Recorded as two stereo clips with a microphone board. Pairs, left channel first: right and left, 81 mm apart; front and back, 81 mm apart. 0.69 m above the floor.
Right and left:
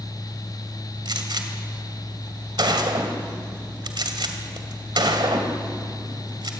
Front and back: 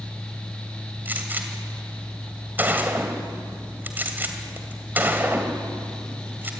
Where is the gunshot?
115° left, 2.5 m.